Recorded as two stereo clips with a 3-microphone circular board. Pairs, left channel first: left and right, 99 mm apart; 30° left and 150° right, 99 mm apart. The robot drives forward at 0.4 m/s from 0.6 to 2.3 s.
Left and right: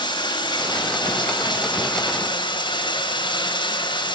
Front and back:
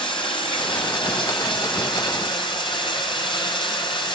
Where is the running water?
55° left, 7 m; by 4.2 s 60° left, 6.5 m.